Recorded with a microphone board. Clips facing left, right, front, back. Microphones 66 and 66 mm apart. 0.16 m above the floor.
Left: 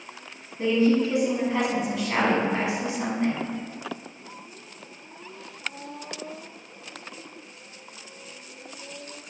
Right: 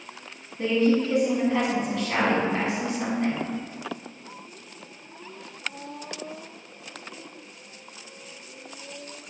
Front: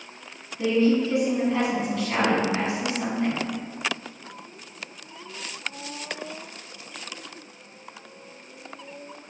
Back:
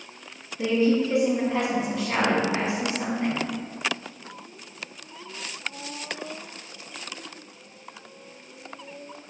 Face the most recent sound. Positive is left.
turn(degrees=145)